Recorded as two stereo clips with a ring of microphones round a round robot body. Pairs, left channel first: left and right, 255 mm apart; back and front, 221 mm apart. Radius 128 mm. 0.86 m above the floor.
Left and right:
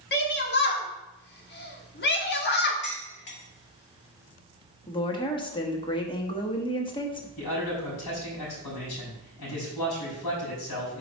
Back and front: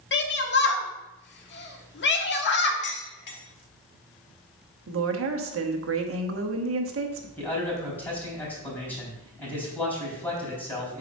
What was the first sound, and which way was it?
A shout, 140° left.